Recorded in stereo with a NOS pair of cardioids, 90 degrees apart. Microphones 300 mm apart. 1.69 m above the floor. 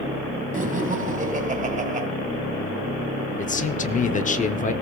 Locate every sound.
0.5 s laughter: 25° right, 2 m
3.4 s a man speaking: 25° left, 0.9 m